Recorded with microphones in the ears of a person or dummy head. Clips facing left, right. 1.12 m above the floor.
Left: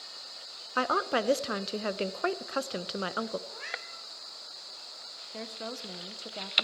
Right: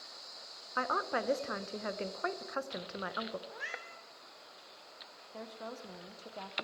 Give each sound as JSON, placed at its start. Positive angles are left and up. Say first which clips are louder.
{"t": 0.8, "sound": "a woman speaking", "louder": "left 6 dB", "side_deg": 45, "distance_m": 0.6}
{"t": 3.5, "sound": "a cat meowing", "louder": "left 2 dB", "side_deg": -5, "distance_m": 0.7}
{"t": 5.3, "sound": "a woman speaking", "louder": "left 5 dB", "side_deg": 30, "distance_m": 0.6}